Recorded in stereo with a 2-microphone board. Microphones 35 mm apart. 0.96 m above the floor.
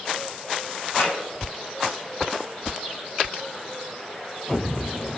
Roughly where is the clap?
Left.